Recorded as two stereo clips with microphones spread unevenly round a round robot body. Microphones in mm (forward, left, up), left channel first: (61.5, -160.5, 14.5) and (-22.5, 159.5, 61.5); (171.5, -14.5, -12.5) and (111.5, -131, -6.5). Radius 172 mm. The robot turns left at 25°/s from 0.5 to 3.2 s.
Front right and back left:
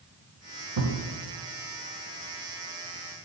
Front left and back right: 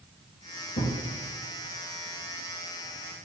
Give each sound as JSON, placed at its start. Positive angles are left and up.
{"t": 0.8, "sound": "a thud", "azimuth_deg": 100, "distance_m": 1.0}